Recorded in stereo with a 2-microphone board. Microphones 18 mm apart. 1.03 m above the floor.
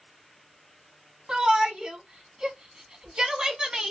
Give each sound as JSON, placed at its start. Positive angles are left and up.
{"t": 1.3, "sound": "a shout", "side_deg": -45, "distance_m": 1.1}